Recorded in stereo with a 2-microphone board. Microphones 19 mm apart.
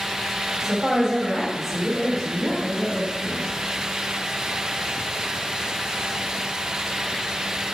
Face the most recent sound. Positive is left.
turn(degrees=50)  # may be behind; listen again after turning